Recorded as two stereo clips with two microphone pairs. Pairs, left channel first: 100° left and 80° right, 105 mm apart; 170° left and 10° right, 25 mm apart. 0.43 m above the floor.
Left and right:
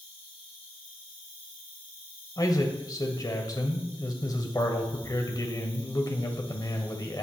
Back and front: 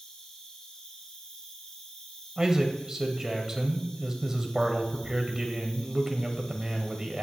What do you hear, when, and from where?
0.0 s an insect: 110° left, 7.5 m
2.4 s a man speaking: 55° left, 2.5 m